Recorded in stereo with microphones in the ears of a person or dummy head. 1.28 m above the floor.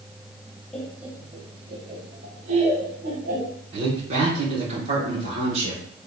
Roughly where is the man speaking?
Right.